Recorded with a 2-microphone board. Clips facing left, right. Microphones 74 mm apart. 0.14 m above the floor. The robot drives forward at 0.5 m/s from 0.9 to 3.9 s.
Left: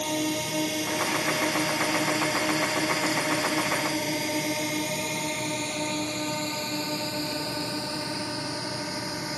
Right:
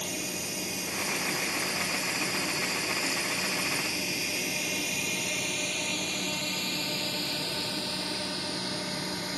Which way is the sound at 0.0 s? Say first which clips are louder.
Left 9 dB; 60° left (ahead or behind).